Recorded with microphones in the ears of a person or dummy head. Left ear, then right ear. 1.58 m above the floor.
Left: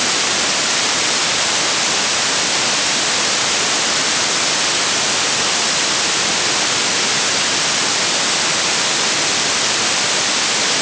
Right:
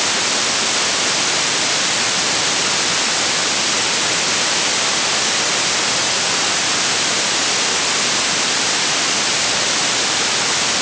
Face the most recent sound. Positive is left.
No sound to turn to.